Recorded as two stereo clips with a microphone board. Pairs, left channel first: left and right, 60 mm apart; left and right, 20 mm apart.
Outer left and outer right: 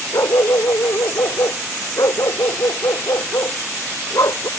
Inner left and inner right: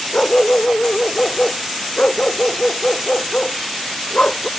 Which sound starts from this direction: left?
A dog barking, at 0.1 s.